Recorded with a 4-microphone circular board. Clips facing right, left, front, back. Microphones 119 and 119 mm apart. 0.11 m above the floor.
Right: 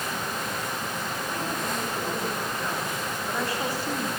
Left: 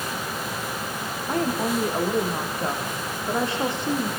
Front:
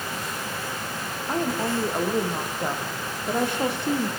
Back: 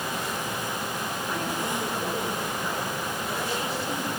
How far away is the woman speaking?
About 8.5 m.